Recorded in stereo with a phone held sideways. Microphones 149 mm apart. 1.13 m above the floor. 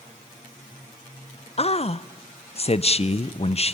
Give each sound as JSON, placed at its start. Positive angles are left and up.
{"t": 1.6, "sound": "a man speaking", "side_deg": 45, "distance_m": 0.6}